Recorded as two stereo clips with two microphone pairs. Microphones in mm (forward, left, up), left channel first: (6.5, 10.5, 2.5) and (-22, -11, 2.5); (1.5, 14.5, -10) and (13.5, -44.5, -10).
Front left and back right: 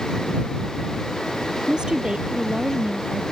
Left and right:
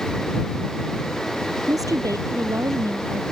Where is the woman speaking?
80° right.